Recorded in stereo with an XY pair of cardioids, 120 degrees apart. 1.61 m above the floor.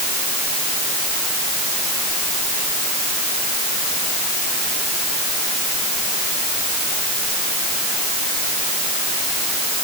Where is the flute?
I don't hear a flute.